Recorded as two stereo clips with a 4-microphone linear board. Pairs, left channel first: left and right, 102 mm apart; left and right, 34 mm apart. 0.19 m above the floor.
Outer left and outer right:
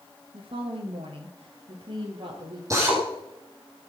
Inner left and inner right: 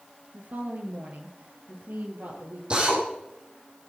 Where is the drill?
30° right (ahead or behind), 6 m.